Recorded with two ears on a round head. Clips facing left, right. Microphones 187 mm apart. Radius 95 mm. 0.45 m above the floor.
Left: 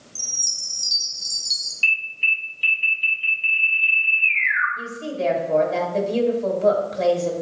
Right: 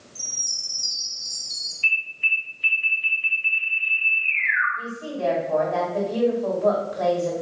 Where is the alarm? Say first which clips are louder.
Left 2 dB; 40° left (ahead or behind), 3 m.